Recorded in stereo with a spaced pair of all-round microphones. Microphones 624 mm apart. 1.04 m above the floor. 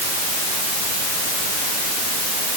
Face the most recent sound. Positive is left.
No sound to turn to.